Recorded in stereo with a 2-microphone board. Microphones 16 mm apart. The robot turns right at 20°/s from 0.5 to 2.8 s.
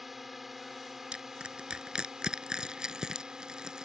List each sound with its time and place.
0.0 s a drone: 170° right; by 3.9 s 125° right
1.1 s crushing: 85° right; by 3.9 s 50° right (ahead or behind)